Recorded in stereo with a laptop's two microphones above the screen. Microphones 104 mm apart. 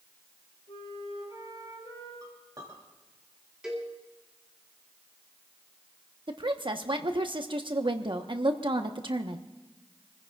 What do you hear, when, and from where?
0.7 s a flute: 70° left (ahead or behind), 5 m
2.2 s a clink: 40° right (ahead or behind), 3 m
3.6 s a cowbell: 10° right (ahead or behind), 2.5 m
6.3 s a woman speaking: 50° right (ahead or behind), 1.2 m